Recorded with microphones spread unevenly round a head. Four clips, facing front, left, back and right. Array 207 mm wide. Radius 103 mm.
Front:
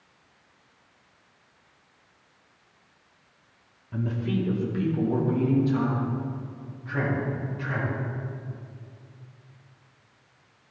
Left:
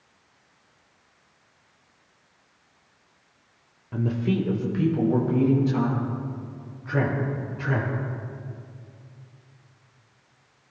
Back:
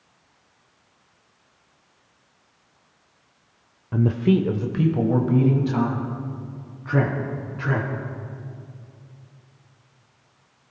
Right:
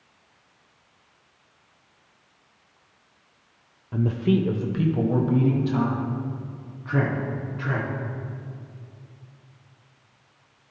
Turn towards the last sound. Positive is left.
turn(degrees=-155)